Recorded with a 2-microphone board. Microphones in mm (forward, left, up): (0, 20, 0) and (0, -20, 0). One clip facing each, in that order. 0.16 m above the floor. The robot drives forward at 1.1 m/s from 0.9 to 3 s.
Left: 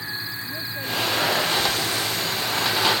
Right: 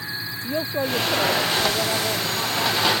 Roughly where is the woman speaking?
Right.